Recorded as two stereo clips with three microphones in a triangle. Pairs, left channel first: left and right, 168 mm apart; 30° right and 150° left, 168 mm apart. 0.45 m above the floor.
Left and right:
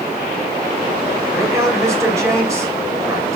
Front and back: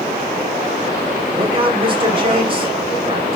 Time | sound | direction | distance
1.4 | a man speaking | 160° right | 2 m